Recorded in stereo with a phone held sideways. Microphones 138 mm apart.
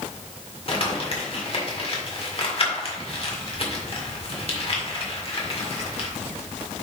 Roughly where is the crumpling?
Left.